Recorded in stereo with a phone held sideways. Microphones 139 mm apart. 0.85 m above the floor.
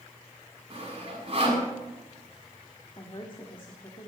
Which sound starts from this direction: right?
Sawing, at 0.7 s.